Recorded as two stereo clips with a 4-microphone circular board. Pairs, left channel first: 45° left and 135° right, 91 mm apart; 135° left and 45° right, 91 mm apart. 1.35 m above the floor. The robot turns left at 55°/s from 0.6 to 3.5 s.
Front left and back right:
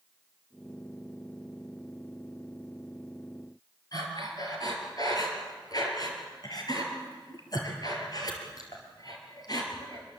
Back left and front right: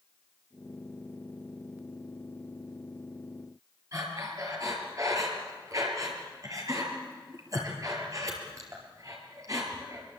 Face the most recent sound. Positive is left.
turn(degrees=5)